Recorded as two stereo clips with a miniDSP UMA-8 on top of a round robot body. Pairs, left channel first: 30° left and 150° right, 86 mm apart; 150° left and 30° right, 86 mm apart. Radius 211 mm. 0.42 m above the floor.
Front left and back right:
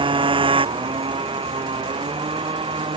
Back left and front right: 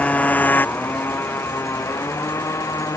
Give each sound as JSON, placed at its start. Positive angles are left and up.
{"t": 0.0, "sound": "a motorcycle", "azimuth_deg": -135}